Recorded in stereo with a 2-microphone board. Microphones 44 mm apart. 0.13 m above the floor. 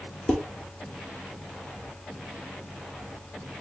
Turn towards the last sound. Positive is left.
turn(degrees=25)  # may be behind; listen again after turning